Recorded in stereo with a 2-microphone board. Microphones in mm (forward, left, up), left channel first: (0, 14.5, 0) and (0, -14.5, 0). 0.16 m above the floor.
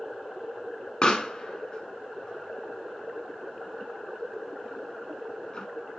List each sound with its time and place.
1.0 s a pop: 35° left (ahead or behind), 1.4 m